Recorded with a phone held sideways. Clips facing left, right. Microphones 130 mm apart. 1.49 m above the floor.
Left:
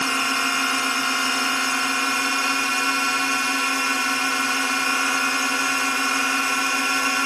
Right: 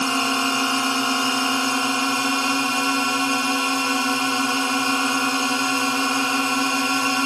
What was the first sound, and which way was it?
A drone, 20° right (ahead or behind).